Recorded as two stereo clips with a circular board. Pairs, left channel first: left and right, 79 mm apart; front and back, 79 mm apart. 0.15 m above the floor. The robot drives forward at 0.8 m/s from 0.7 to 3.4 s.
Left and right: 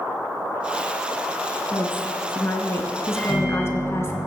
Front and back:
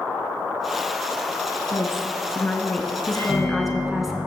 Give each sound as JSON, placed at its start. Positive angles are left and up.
{"t": 1.7, "sound": "a woman speaking", "azimuth_deg": 35, "distance_m": 2.0}
{"t": 3.1, "sound": "a microwave", "azimuth_deg": -5, "distance_m": 4.0}